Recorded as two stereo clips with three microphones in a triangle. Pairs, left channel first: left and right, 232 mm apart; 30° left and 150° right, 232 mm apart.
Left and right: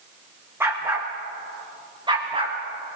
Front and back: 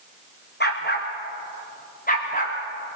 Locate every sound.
0.6 s a dog barking: 10° right, 3.5 m; by 3.0 s 25° right, 4.5 m